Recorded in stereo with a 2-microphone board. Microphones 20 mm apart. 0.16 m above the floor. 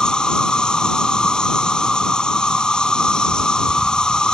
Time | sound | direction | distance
0.0 | an insect | 45° left (ahead or behind) | ?